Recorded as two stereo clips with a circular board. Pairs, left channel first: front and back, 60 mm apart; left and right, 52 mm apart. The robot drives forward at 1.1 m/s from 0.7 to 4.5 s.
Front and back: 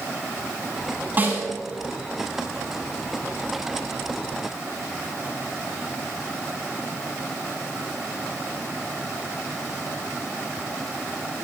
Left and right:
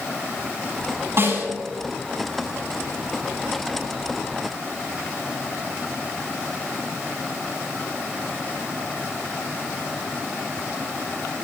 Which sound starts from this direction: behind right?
A snare drum, at 1.2 s.